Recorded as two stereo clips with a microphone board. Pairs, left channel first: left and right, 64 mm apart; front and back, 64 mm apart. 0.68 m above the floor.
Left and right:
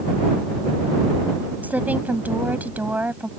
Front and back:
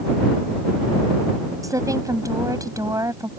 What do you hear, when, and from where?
1.6 s a woman speaking: 155° right